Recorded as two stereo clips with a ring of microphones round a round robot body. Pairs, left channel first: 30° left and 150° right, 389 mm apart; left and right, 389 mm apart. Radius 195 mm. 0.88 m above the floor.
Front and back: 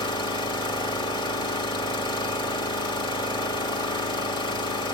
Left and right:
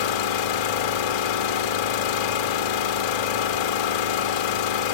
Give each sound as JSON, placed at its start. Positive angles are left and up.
{"t": 0.0, "sound": "an engine running", "azimuth_deg": 110, "distance_m": 1.6}